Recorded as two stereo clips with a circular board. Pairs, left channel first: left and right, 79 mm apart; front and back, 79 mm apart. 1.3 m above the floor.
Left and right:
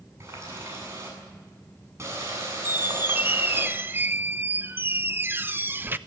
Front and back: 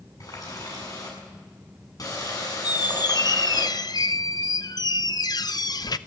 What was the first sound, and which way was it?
A running tap, 35° right.